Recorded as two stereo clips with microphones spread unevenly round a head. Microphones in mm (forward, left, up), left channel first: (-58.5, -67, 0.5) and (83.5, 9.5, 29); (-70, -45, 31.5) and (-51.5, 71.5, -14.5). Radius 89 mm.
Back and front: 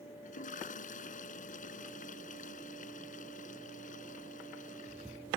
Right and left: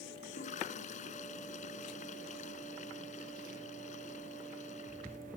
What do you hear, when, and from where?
0.2 s a toilet flushing: 110° right